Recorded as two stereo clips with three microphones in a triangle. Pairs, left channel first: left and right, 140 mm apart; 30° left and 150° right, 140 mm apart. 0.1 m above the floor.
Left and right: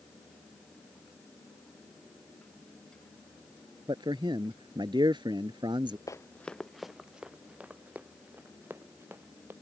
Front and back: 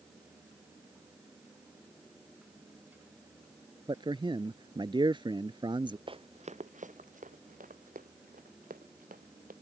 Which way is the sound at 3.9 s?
120° right.